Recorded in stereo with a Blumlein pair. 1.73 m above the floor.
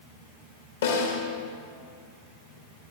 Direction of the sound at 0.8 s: 65° left.